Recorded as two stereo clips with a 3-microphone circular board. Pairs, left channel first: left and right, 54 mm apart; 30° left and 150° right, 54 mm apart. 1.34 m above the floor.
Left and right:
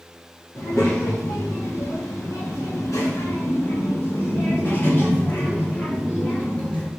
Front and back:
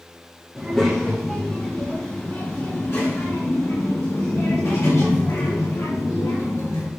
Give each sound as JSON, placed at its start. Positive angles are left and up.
{"t": 0.6, "sound": "a child speaking", "azimuth_deg": 115, "distance_m": 2.0}